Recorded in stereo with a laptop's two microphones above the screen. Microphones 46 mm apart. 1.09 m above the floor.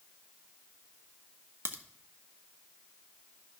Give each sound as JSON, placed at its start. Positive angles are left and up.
{"t": 1.6, "sound": "a crack", "side_deg": -60, "distance_m": 1.1}